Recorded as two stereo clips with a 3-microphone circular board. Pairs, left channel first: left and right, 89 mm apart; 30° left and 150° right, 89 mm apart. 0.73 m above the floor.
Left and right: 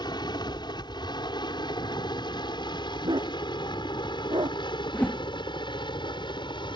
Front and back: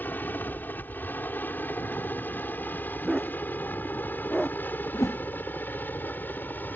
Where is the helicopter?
95° left.